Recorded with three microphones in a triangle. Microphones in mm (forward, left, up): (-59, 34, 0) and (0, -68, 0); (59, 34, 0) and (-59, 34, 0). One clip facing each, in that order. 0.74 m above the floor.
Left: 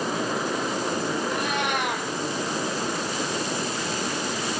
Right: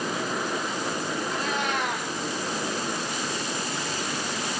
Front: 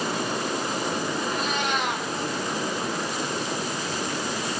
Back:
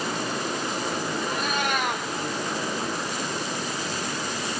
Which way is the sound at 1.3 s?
140° left.